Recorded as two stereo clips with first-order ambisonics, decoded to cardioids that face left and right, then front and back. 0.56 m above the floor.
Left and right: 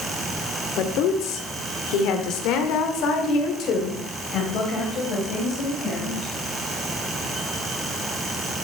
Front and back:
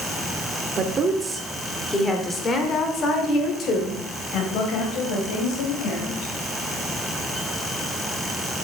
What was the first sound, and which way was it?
A woman speaking, 120° left.